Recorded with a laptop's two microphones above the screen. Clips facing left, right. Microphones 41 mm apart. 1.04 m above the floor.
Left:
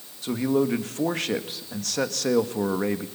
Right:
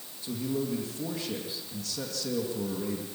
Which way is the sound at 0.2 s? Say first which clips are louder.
Left 9 dB; 65° left (ahead or behind).